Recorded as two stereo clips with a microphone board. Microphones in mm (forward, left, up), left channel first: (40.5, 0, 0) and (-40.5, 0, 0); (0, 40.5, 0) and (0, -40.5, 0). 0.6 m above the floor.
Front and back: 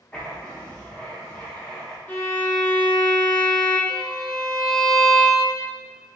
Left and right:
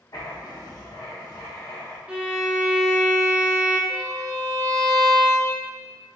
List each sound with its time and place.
0.1 s writing: 75° left, 0.8 m
2.1 s a violin: 35° right, 0.7 m
3.9 s a violin: 140° left, 0.7 m